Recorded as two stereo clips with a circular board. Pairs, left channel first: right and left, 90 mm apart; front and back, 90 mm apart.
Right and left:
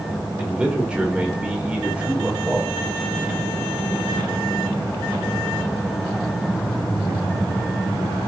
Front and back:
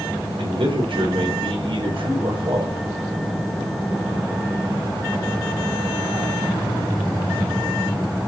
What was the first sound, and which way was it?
A man speaking, 170° left.